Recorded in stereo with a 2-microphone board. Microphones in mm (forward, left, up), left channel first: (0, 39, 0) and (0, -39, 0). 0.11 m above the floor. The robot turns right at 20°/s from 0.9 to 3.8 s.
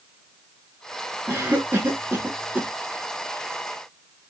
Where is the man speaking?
I don't hear a man speaking.